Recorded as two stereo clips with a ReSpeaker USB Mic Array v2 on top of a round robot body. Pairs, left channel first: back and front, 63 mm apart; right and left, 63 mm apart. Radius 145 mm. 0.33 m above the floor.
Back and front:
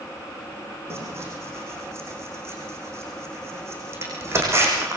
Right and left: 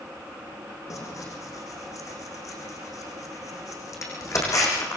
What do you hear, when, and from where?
0.9 s tearing paper: 50° right, 7.5 m